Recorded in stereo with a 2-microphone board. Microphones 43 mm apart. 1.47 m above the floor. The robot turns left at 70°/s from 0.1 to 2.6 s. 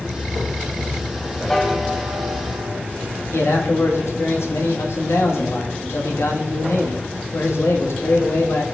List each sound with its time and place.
1.5 s a piano: 15° left, 1.1 m; by 2.8 s 65° right, 1.1 m
3.3 s a man speaking: 75° left (ahead or behind), 1.9 m